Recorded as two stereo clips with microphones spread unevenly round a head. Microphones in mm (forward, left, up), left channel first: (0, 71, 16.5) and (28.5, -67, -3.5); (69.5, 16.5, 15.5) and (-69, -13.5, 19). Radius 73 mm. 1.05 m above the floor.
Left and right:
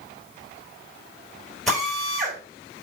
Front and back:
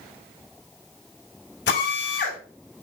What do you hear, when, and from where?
1.7 s a drill: 15° left, 3.5 m